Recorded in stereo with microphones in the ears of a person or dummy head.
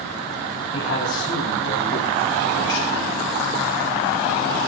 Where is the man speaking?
85° left, 9 m; by 3.1 s 70° left (ahead or behind), 9.5 m.